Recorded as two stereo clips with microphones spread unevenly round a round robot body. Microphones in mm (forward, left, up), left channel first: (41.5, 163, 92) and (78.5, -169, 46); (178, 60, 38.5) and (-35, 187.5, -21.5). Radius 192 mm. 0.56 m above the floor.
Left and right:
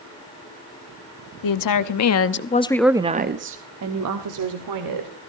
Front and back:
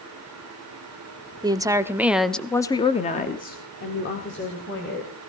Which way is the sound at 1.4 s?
85° left.